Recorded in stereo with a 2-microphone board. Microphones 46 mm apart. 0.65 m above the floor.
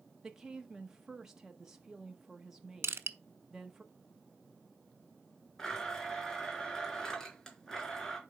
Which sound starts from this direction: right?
Crushing, at 2.8 s.